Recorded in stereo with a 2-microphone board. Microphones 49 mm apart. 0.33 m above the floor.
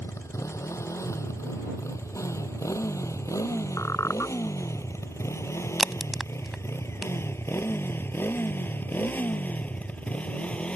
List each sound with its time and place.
0.0 s a motorcycle: 75° left (ahead or behind); by 10.8 s 25° left (ahead or behind)
3.8 s a squeak: 70° left (ahead or behind)
5.8 s a crack: 5° right (ahead or behind)